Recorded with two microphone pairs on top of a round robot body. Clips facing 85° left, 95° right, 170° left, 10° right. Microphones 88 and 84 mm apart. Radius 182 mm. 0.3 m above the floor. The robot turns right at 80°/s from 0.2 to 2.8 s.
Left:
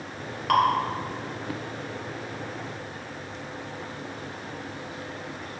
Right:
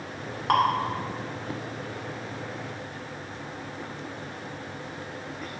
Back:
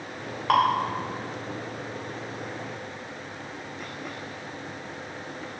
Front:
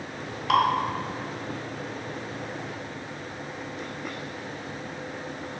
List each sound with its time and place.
0.5 s dripping: 150° right, 1.2 m; by 0.6 s 140° right, 1.2 m